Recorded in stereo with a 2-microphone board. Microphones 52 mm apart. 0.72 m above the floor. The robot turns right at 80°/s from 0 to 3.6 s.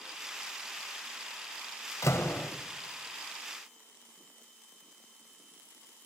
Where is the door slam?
110° left, 2.5 m; by 2.5 s 145° left, 2.5 m.